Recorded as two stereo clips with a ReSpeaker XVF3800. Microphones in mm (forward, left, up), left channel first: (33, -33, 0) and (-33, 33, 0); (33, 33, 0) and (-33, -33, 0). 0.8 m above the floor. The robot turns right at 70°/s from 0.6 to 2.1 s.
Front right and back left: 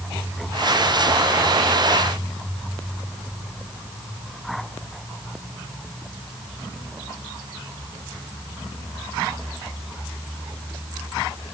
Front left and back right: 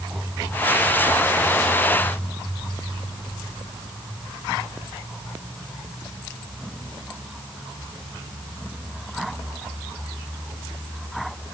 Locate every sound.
Only background noise.